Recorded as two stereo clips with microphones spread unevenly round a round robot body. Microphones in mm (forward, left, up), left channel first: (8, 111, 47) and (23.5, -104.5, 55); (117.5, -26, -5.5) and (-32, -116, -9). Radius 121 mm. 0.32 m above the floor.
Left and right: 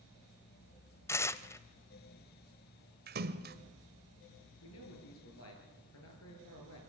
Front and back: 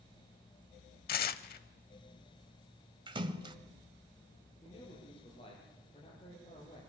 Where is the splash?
100° right, 1.5 m.